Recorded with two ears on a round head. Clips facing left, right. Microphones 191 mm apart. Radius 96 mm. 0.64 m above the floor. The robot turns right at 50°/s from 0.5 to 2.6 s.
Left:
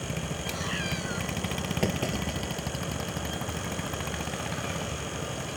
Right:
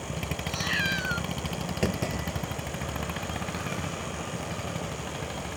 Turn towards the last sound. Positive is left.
turn(degrees=35)  # may be behind; listen again after turning